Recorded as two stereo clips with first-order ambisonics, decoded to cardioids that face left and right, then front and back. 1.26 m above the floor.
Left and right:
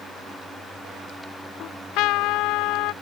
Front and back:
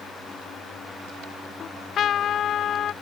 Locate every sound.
1.6 s a trumpet: 60° left